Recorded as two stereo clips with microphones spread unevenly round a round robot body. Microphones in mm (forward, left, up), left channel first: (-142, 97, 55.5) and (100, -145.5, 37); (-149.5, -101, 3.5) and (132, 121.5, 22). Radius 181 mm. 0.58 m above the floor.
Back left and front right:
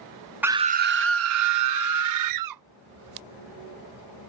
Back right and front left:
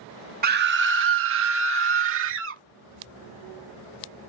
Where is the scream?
25° left; by 2.6 s 20° right.